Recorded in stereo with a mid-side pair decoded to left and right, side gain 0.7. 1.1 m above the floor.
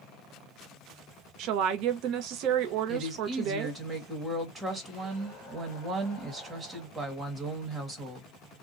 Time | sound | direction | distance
1.4 | a woman speaking | 60° right | 0.6 m
2.9 | a woman speaking | 25° right | 1.4 m